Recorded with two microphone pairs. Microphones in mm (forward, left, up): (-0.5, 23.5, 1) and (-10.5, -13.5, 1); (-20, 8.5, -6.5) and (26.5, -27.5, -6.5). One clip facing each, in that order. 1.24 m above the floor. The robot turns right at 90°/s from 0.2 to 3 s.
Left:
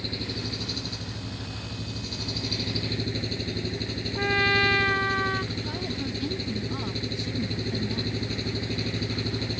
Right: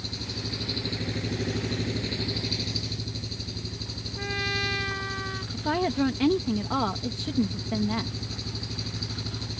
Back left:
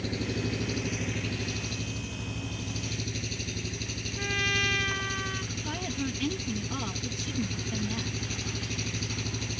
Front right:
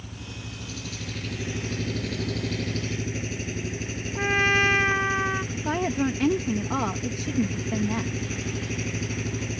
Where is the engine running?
135° left; by 9.6 s 25° left.